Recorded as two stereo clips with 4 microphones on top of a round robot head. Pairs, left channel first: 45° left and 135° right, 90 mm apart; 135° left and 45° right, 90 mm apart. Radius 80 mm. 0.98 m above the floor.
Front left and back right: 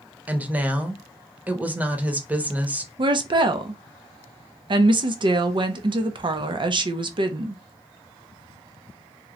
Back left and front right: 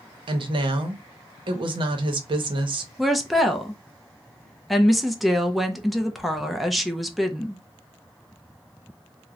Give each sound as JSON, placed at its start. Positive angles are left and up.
{"t": 0.3, "sound": "a woman speaking", "azimuth_deg": -65, "distance_m": 0.7}
{"t": 3.0, "sound": "a woman speaking", "azimuth_deg": -130, "distance_m": 0.6}